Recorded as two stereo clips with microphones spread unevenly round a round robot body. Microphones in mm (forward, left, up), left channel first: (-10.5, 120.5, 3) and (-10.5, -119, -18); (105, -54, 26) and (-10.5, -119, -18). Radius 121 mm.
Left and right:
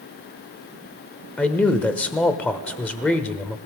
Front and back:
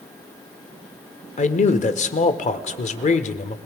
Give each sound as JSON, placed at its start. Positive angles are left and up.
{"t": 1.4, "sound": "a man speaking", "azimuth_deg": 5, "distance_m": 1.0}